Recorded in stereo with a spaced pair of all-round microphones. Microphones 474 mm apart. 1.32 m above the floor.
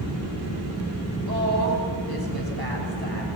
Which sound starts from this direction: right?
A woman speaking, at 1.3 s.